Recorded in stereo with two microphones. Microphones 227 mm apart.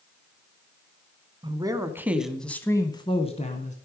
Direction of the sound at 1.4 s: 20° right (ahead or behind).